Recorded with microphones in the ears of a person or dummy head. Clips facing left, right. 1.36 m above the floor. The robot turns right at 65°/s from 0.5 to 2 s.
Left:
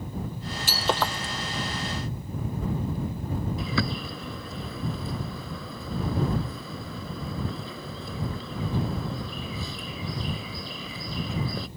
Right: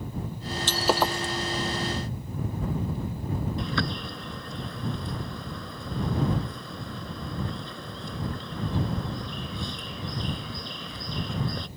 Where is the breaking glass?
10° left (ahead or behind); by 1.3 s 35° right (ahead or behind).